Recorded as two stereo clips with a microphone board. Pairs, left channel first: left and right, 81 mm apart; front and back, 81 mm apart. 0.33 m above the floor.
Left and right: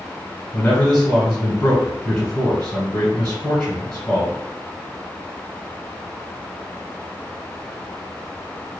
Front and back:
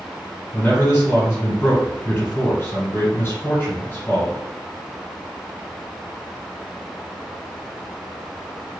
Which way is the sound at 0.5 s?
20° left.